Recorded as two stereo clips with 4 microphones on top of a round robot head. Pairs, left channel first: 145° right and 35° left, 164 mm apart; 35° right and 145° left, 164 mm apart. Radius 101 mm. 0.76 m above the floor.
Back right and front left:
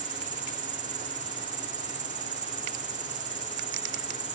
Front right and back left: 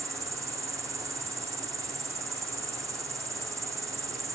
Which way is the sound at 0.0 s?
75° left.